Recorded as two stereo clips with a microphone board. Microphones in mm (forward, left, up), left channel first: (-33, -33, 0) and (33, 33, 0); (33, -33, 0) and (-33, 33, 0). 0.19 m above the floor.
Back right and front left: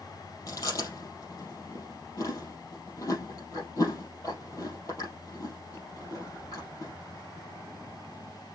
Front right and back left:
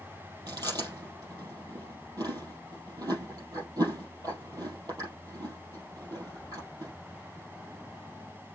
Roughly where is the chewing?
Behind.